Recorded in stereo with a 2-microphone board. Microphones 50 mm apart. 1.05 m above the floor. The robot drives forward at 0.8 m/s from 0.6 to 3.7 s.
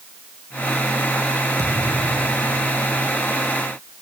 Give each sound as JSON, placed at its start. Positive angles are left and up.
{"t": 1.6, "sound": "a thud", "side_deg": -85}